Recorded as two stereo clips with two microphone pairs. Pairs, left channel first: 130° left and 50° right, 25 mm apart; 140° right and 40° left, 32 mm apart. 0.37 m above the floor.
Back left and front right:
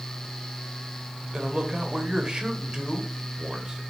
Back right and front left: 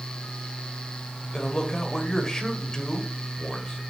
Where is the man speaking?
85° right, 1.7 m.